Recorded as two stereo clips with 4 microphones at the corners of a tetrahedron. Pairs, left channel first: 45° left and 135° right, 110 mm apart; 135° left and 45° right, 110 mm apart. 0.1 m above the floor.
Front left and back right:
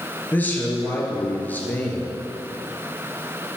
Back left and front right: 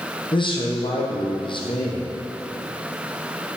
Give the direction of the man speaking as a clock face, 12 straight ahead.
8 o'clock.